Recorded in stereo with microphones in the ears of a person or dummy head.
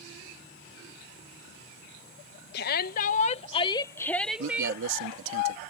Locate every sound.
2.5 s a shout: 60° left (ahead or behind); by 4.8 s 20° right (ahead or behind)
4.4 s a man speaking: 75° right (ahead or behind)